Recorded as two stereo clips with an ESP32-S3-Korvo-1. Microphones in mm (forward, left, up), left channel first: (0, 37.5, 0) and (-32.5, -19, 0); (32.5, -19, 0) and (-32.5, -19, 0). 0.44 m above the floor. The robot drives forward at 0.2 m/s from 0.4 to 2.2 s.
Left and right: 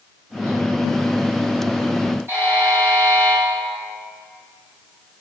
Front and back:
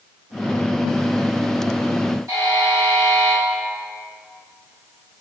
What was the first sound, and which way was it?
A buzzer, 170° right.